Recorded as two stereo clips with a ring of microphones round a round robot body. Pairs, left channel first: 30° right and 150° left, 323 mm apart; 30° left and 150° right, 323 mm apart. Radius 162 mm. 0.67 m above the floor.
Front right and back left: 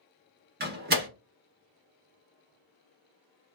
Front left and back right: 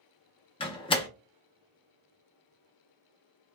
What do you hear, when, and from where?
0.6 s a door slam: 100° left, 0.6 m